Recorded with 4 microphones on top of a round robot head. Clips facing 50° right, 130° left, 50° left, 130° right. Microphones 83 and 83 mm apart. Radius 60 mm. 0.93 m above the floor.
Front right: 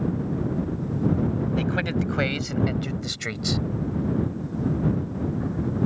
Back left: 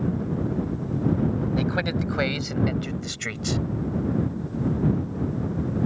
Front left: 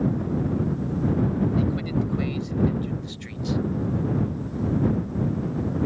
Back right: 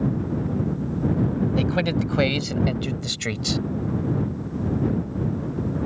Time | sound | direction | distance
1.6 | a man speaking | 150° right | ?